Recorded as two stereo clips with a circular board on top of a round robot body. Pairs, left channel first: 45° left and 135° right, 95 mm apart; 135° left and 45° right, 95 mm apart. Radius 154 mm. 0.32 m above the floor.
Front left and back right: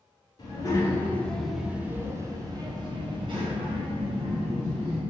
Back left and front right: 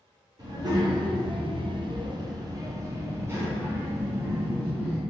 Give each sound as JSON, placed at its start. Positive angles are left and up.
{"t": 0.4, "sound": "a child speaking", "azimuth_deg": 0, "distance_m": 1.0}